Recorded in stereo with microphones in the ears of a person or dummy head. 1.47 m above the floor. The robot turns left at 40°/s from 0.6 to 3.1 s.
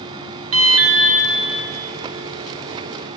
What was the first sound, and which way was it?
An alarm, 70° right (ahead or behind).